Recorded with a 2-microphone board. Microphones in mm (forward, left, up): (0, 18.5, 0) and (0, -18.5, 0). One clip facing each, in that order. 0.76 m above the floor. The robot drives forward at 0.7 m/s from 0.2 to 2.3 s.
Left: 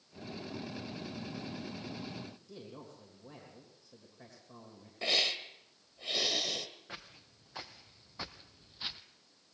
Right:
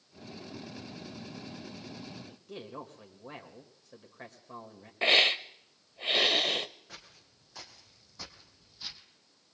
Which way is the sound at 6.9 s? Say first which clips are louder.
Left 3 dB; 30° left (ahead or behind).